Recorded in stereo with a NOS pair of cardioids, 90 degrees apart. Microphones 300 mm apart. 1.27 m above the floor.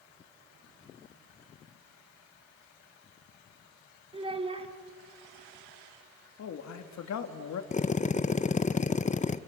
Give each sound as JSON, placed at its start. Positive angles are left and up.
{"t": 4.1, "sound": "a child speaking", "azimuth_deg": -20, "distance_m": 2.5}
{"t": 6.4, "sound": "a man speaking", "azimuth_deg": 65, "distance_m": 2.5}
{"t": 7.7, "sound": "a drill", "azimuth_deg": 25, "distance_m": 0.8}